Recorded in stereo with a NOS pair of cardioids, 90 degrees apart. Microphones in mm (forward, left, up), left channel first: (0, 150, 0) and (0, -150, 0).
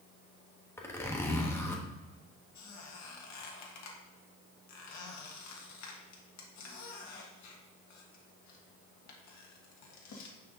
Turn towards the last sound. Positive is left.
turn(degrees=65)